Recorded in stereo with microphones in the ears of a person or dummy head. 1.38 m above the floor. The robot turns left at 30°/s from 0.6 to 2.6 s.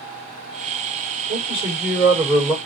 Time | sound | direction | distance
1.3 | a man speaking | 150° right | 5.5 m